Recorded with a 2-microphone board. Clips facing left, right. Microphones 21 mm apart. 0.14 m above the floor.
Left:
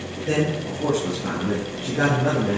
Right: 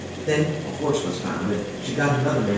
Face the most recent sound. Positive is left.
turn(degrees=20)  # may be behind; listen again after turning